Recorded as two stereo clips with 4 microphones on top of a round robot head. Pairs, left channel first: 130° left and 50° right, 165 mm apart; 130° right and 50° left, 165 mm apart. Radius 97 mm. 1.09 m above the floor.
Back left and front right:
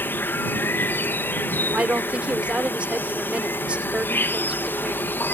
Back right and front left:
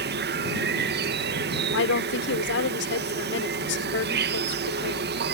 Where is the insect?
50° left.